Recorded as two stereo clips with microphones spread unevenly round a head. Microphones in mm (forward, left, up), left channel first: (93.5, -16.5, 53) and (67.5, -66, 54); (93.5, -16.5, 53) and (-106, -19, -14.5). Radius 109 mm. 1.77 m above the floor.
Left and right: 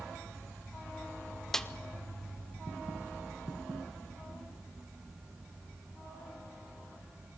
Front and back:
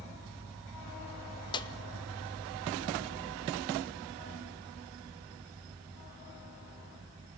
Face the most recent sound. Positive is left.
turn(degrees=-15)